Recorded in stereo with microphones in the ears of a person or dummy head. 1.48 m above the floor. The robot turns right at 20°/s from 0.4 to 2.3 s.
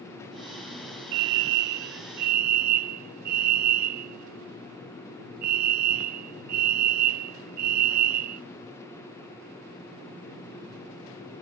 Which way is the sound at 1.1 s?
75° right (ahead or behind).